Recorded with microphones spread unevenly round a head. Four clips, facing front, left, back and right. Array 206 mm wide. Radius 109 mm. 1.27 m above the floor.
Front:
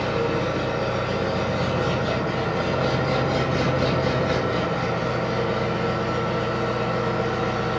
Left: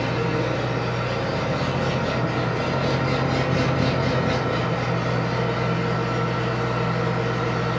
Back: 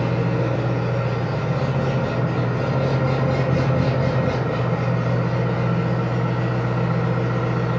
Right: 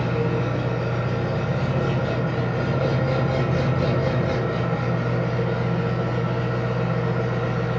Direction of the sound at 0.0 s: 160° right.